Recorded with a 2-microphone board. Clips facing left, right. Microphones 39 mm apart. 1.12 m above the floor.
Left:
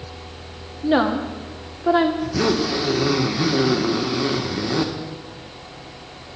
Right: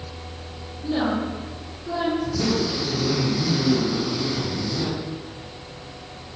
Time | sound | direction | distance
0.8 | a woman speaking | 80° left | 1.9 m
2.2 | a zipper | 70° left (ahead or behind) | 1.6 m